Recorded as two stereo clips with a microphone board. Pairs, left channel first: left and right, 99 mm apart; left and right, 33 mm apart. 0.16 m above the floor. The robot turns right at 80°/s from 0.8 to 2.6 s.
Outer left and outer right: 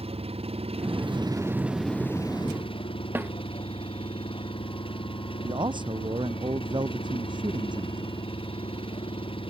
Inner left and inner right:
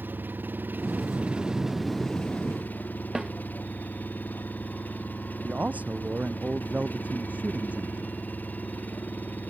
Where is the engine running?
80° right; by 9.5 s 65° left.